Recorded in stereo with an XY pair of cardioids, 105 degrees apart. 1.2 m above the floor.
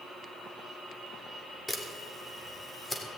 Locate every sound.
1.7 s a camera shutter: 15° left, 3 m